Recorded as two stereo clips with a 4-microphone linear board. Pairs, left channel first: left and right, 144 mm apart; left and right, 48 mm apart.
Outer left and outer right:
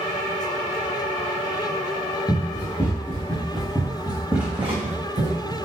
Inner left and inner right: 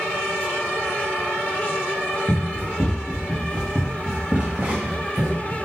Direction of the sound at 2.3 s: 30° left (ahead or behind).